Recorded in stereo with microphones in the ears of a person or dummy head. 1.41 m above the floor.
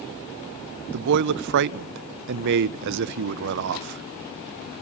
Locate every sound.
0.9 s a man speaking: 60° right (ahead or behind), 0.6 m